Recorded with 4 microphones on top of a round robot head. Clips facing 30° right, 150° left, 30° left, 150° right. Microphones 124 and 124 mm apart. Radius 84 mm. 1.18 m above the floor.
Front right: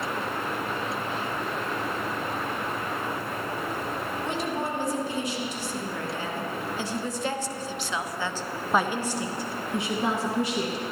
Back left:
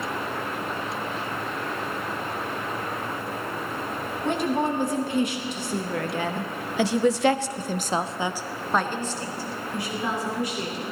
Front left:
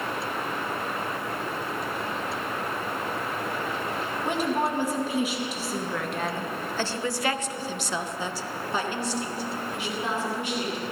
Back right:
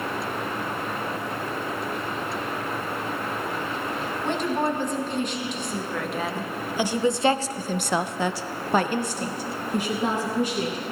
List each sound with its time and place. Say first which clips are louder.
4.2 s a woman speaking: back left 8 dB, back right 1 dB; 110° left, 2.0 m; by 10.8 s 95° right, 1.7 m